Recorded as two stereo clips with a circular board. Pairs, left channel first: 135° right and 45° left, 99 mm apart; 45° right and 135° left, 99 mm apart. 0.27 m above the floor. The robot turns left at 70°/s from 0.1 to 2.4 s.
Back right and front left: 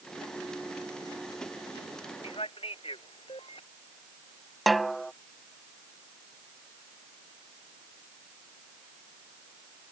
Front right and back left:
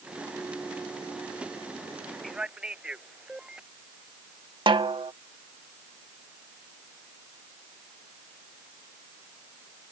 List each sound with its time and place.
2.2 s a man speaking: 135° right; by 3.6 s 145° right
4.7 s a snare drum: 135° left